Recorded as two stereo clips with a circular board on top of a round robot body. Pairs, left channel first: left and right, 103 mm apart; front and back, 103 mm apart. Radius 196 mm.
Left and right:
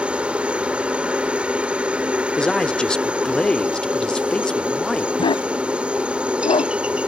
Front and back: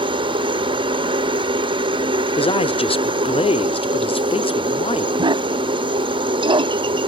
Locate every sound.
0.0 s a helicopter: 165° right
2.4 s a man speaking: 10° left
5.2 s a dog barking: 135° left